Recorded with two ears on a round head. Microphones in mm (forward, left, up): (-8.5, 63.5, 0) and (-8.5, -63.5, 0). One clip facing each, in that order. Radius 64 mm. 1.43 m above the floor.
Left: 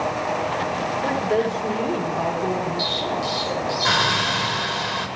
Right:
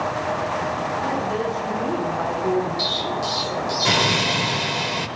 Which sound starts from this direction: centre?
An explosion, at 2.8 s.